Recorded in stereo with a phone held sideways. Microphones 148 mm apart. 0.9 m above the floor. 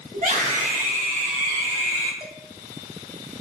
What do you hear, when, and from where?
0.1 s a scream: 65° right (ahead or behind), 2.5 m
2.2 s dishes clattering: 25° right (ahead or behind), 3 m